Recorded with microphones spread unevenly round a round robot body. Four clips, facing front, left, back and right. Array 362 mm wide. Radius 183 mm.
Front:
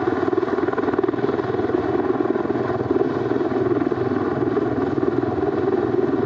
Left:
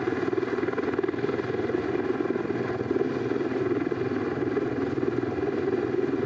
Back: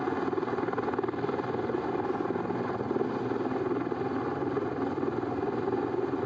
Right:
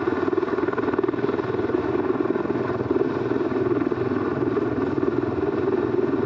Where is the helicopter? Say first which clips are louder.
Right 4 dB, front 10 dB; 15° right.